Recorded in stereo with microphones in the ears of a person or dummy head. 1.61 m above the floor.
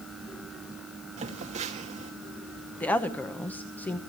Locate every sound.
1.2 s a phone buzzing: 35° right (ahead or behind), 1.8 m
2.8 s a woman speaking: 10° left (ahead or behind), 1.0 m